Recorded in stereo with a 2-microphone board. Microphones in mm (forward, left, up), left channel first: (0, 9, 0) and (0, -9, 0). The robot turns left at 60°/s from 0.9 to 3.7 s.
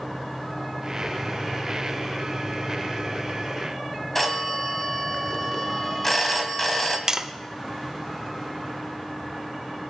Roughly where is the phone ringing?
Centre.